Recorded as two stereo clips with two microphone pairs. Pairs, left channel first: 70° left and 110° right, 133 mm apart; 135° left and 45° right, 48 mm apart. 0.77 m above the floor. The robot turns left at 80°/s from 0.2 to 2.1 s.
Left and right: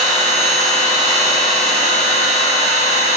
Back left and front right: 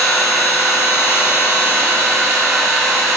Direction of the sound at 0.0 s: 170° right.